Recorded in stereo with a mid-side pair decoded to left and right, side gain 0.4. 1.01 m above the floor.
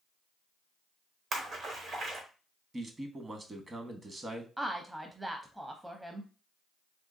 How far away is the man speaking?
About 1.1 m.